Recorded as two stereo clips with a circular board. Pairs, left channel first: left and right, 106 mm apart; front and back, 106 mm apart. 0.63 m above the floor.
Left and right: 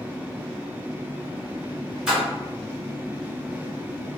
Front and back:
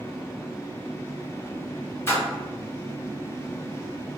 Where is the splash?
20° right, 1.2 m.